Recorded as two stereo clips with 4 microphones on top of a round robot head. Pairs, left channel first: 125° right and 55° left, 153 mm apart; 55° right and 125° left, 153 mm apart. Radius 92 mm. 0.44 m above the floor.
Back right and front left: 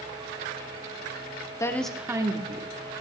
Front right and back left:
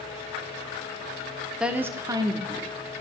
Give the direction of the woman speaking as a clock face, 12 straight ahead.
5 o'clock.